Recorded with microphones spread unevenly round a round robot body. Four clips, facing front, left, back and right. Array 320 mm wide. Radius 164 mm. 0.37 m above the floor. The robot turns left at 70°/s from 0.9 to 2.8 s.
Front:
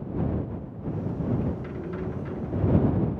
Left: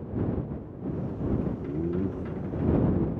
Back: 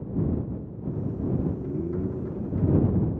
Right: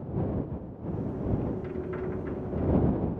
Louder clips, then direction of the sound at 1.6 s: Left 4 dB, back 4 dB; 145° left.